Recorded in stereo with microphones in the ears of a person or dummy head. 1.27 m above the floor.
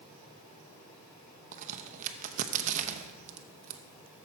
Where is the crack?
35° right (ahead or behind), 0.7 m.